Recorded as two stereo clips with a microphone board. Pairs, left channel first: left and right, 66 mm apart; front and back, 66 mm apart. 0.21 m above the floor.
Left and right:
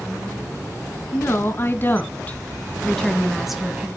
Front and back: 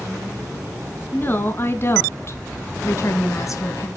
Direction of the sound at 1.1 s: 50° left.